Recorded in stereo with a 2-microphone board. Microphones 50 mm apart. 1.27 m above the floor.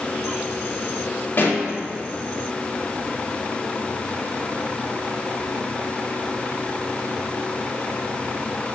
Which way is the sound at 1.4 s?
50° left (ahead or behind).